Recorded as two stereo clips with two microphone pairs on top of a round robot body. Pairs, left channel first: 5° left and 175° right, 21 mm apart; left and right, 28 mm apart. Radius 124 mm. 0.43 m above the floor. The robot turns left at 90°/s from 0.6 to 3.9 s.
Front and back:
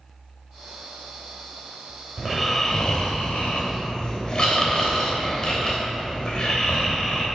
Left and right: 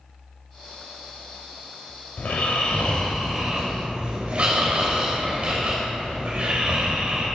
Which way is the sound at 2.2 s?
115° left.